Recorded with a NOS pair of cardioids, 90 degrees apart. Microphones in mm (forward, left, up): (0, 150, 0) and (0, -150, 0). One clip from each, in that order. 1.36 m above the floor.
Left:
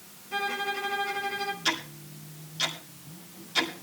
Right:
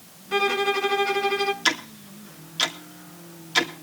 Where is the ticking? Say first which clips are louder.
Right 5 dB; 55° right, 2.0 m.